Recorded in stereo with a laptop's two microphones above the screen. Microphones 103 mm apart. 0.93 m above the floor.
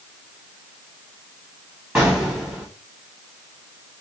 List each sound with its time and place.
1.9 s an explosion: 5° right (ahead or behind), 1.7 m